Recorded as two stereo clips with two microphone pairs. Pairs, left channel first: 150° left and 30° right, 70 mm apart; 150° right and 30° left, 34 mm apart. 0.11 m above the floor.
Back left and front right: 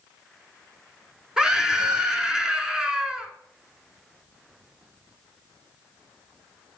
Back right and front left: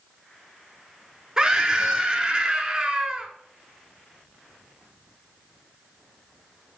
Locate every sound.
1.4 s a scream: 30° left, 1.1 m